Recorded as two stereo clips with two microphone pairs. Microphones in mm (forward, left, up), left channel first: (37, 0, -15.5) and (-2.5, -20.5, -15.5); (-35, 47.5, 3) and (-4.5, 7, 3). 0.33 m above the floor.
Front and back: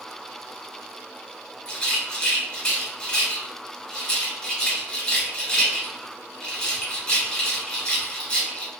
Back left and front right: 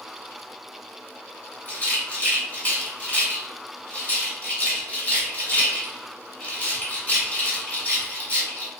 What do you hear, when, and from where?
1.6 s a rattle: 90° left, 1.8 m